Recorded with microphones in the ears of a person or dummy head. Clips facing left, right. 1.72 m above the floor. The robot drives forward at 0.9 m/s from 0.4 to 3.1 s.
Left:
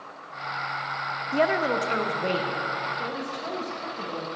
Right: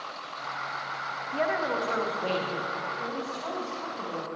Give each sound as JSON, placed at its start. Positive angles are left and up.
{"t": 1.3, "sound": "a woman speaking", "side_deg": 60, "distance_m": 0.6}